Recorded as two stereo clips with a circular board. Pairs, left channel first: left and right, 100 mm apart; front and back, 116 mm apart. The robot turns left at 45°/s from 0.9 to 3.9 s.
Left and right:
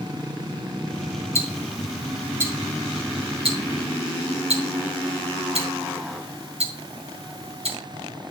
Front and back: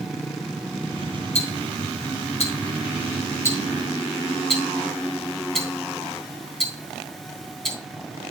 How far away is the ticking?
About 3.5 m.